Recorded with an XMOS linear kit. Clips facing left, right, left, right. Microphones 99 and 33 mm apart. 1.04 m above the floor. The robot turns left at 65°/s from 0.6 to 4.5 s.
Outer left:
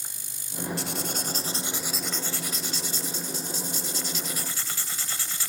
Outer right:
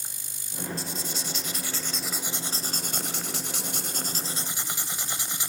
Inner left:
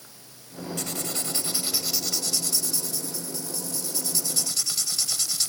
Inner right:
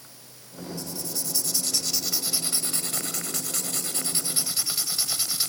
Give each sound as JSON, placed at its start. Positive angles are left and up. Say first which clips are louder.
{"t": 0.8, "sound": "writing", "louder": "outer left 3 dB, inner left 4 dB", "azimuth_deg": 80, "distance_m": 2.0}